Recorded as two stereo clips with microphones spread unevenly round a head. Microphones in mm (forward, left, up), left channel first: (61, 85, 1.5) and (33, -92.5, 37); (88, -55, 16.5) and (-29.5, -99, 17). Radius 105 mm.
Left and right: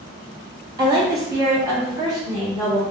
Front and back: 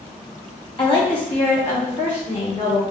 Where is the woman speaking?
25° right, 2 m.